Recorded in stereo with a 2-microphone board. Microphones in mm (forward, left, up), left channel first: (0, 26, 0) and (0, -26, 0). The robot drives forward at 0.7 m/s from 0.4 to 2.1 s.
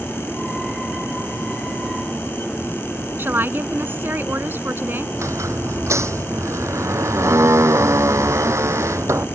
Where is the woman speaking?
45° right (ahead or behind).